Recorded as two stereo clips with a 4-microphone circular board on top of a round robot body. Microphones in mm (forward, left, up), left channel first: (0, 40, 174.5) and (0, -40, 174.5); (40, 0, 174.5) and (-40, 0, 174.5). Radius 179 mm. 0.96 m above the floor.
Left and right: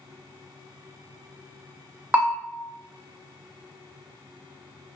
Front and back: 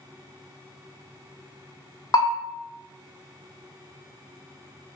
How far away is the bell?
About 0.7 m.